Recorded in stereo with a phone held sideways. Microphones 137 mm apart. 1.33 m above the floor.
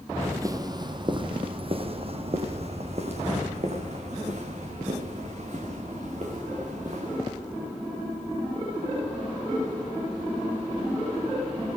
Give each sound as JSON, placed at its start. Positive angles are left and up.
{"t": 0.2, "sound": "footsteps", "side_deg": -20, "distance_m": 1.8}